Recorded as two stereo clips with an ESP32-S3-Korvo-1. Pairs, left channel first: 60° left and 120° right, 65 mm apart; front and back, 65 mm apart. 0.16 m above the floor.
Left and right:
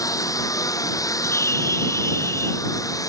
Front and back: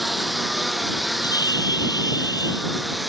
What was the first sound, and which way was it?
A lawn mower, 90° left.